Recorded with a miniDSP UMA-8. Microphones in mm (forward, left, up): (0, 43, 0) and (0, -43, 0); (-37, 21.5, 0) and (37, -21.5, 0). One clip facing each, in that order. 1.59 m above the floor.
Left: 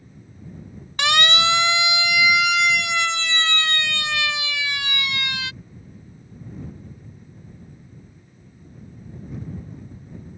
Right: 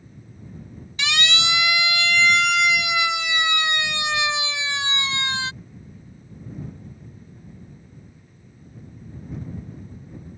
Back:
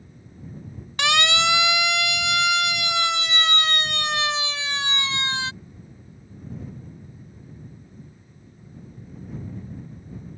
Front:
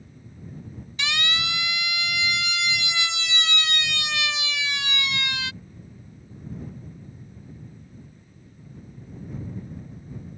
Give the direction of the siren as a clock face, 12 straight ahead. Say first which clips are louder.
Left 5 dB, back 8 dB; 8 o'clock.